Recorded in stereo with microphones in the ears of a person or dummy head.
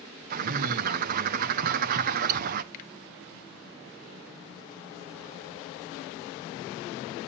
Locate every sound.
0.3 s a bird: 55° right (ahead or behind), 0.6 m
2.7 s a finger snap: 50° left (ahead or behind), 1.3 m